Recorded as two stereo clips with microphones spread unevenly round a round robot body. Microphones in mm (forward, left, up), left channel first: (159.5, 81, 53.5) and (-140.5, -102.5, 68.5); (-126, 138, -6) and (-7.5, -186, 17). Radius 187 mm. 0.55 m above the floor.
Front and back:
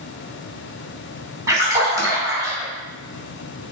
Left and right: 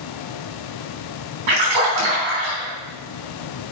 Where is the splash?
70° right, 4.5 m.